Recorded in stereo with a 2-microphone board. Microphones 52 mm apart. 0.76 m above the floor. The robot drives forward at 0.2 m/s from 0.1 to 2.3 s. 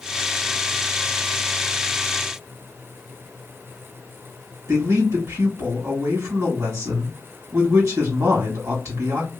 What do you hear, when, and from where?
4.7 s a man speaking: 65° right (ahead or behind), 1.9 m